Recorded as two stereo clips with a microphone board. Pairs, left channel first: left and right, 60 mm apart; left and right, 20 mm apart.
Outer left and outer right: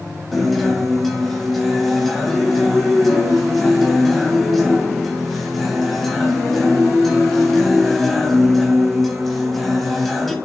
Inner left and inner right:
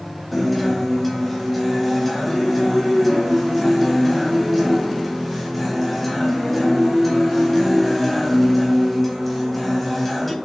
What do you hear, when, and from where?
0.3 s a guitar: centre (ahead or behind), 2 m